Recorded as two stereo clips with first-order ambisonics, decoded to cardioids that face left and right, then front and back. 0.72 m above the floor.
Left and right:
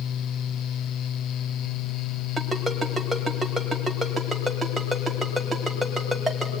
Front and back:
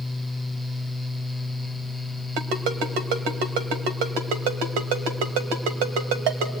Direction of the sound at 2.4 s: Straight behind.